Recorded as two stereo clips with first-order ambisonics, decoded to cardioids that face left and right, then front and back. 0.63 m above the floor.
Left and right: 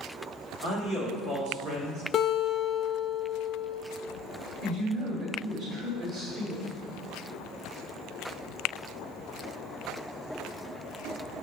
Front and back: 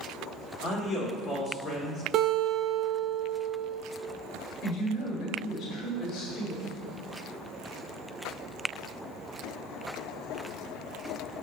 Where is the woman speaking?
45° right, 1.7 m.